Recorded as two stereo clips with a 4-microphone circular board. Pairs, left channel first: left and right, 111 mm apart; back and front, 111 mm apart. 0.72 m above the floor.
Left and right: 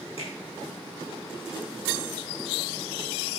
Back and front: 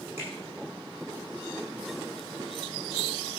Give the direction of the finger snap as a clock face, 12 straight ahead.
10 o'clock.